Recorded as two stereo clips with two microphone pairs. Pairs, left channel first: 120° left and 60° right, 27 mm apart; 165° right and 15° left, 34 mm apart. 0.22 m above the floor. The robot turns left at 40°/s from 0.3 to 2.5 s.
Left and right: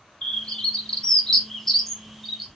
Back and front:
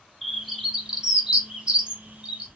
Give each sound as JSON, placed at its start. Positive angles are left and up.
{"t": 0.2, "sound": "a bird", "azimuth_deg": 110, "distance_m": 0.8}